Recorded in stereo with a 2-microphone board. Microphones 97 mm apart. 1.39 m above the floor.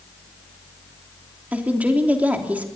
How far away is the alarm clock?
No alarm clock in this recording.